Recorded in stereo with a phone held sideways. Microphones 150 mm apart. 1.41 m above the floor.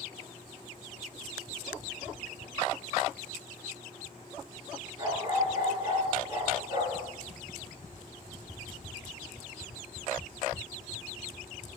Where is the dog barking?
25° right (ahead or behind), 9.5 m.